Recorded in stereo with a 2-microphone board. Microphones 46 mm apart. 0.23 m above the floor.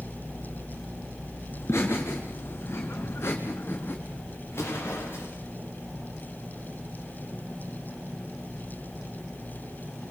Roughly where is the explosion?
Left.